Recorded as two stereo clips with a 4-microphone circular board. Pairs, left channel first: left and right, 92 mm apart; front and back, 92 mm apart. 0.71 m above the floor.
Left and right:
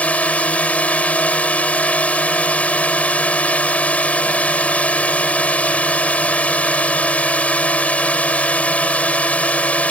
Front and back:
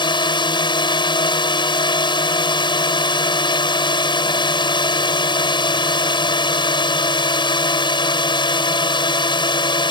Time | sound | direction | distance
0.0 | a drone | 15° left | ?